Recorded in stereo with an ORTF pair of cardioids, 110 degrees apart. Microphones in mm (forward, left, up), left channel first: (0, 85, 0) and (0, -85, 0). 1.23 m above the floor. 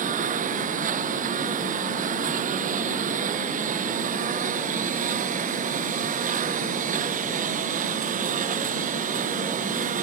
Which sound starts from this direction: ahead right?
A lawn mower, at 0.0 s.